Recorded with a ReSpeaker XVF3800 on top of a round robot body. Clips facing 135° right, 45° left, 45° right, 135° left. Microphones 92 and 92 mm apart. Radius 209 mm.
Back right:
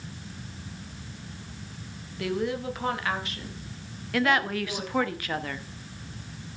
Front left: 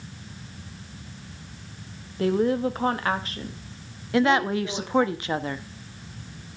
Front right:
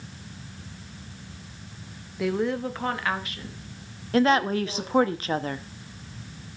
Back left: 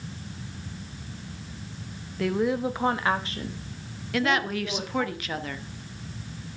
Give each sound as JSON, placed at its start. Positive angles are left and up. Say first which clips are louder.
{"t": 2.2, "sound": "a woman speaking", "louder": "front left 7 dB, back left 1 dB", "azimuth_deg": 35, "distance_m": 1.4}
{"t": 4.1, "sound": "a woman speaking", "louder": "front left 4 dB, front right 5 dB", "azimuth_deg": -10, "distance_m": 1.0}